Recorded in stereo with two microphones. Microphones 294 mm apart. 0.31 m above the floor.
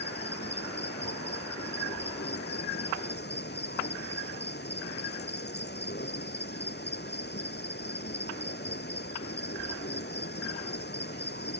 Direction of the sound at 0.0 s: 35° left (ahead or behind).